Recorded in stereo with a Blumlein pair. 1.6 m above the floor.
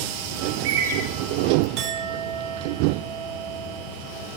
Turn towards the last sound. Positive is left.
turn(degrees=-40)